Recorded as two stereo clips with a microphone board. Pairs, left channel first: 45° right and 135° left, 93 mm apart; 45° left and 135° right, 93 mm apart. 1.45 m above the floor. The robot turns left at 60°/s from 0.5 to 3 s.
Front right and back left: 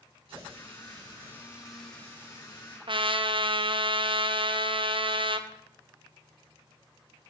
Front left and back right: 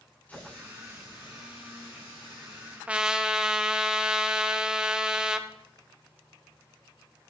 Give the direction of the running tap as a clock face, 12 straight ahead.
8 o'clock.